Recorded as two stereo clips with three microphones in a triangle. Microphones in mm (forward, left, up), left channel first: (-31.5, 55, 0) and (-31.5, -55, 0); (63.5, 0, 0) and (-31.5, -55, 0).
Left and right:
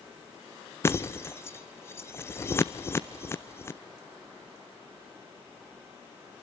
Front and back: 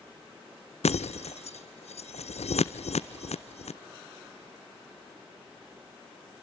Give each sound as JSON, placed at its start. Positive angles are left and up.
{"t": 0.8, "sound": "breaking glass", "azimuth_deg": 25, "distance_m": 0.8}